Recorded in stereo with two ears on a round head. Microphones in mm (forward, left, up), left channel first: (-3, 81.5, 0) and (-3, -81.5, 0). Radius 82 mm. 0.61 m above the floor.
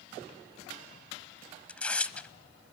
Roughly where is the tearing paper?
Centre.